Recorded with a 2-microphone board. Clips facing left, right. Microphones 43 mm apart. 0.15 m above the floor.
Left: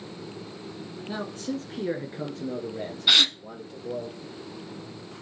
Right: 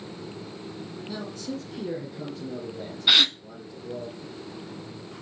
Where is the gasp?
5° right (ahead or behind), 0.8 m.